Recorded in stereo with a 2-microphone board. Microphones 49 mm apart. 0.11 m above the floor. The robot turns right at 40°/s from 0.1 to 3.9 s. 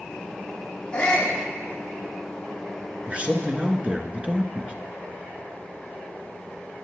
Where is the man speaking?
25° right (ahead or behind), 1.3 m.